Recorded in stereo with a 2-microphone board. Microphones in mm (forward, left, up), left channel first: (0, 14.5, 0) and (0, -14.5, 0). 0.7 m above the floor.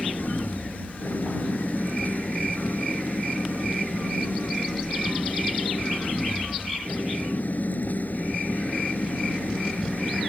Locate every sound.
0.0 s an engine running: 85° left